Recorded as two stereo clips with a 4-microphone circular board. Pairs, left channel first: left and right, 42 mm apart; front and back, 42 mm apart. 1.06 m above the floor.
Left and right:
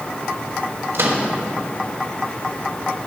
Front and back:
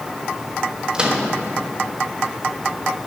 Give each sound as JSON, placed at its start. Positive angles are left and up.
{"t": 0.9, "sound": "a microwave", "azimuth_deg": -115, "distance_m": 1.4}